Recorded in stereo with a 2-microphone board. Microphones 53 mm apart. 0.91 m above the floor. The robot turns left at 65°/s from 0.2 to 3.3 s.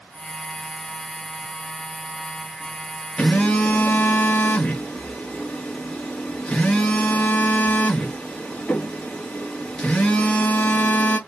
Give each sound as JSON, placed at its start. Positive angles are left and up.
{"t": 3.2, "sound": "a phone buzzing", "side_deg": 10, "distance_m": 1.1}